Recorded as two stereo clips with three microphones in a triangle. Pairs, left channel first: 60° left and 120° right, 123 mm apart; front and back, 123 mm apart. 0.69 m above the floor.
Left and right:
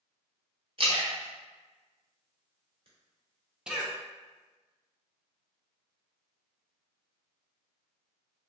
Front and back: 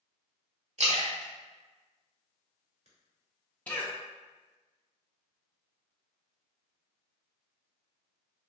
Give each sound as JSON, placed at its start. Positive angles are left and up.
{"t": 0.8, "sound": "a splash", "azimuth_deg": -160, "distance_m": 1.1}
{"t": 3.7, "sound": "a cough", "azimuth_deg": -50, "distance_m": 0.6}